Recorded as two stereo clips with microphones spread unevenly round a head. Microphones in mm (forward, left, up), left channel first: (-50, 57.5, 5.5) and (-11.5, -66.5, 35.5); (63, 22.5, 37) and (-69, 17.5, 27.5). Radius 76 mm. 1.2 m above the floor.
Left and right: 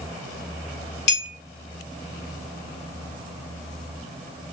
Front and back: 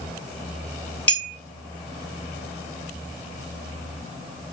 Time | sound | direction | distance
1.1 | a clink | 80° left | 1.2 m